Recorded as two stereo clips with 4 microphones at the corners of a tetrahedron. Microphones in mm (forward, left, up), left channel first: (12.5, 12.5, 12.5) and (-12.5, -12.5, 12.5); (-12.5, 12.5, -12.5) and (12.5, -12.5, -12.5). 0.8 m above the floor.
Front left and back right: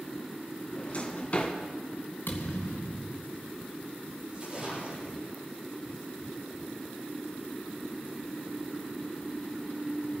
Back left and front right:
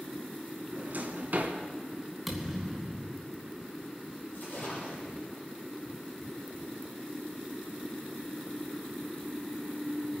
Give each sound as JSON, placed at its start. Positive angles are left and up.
{"t": 0.7, "sound": "a drawer", "azimuth_deg": -10, "distance_m": 2.5}
{"t": 2.3, "sound": "a thud", "azimuth_deg": 45, "distance_m": 3.0}
{"t": 4.3, "sound": "a splash", "azimuth_deg": 160, "distance_m": 10.0}